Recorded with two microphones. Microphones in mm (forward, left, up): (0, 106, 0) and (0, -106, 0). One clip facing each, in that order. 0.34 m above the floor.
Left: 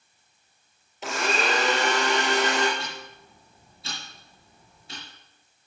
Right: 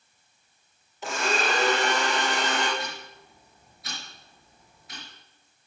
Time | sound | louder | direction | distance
1.0 | a blender | left 1 dB | 20° left (ahead or behind) | 4 m
2.8 | ticking | right 1 dB | 30° left (ahead or behind) | 5.5 m